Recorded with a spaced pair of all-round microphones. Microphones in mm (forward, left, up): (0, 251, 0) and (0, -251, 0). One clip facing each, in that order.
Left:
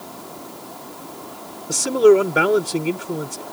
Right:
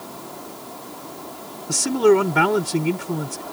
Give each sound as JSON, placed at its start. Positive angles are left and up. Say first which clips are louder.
{"t": 1.7, "sound": "a man speaking", "louder": "left 3 dB", "side_deg": -20}